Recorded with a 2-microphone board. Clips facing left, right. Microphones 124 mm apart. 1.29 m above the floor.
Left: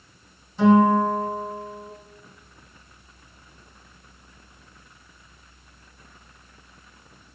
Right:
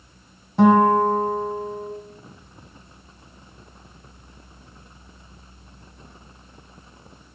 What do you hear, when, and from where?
0.6 s a guitar: 60° right (ahead or behind), 2 m